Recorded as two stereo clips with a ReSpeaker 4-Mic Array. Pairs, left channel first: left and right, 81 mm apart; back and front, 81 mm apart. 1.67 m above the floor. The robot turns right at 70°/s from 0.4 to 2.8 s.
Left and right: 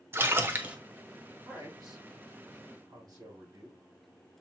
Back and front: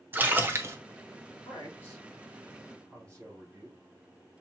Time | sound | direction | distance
0.1 | a splash | 50° right | 0.6 m
1.4 | a man speaking | 150° right | 3.5 m